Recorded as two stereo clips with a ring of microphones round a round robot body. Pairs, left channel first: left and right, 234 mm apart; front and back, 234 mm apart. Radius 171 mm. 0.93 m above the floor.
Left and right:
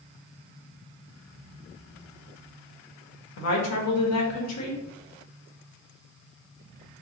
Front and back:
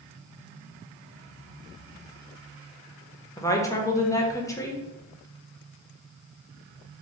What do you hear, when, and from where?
3.4 s a woman speaking: 80° left, 1.0 m